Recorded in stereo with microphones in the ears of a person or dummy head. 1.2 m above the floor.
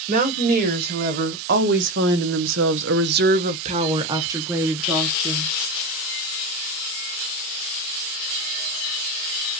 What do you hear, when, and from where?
0.1 s a woman speaking: 40° right (ahead or behind), 2 m; by 5.5 s centre (ahead or behind), 1.6 m